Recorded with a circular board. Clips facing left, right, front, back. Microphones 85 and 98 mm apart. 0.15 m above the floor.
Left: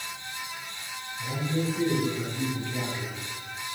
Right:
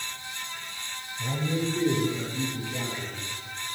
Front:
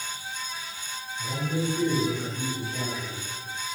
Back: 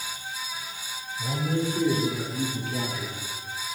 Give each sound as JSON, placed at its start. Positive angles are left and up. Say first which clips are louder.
{"t": 1.2, "sound": "a man speaking", "louder": "right 1 dB, back 2 dB", "azimuth_deg": -145, "distance_m": 4.5}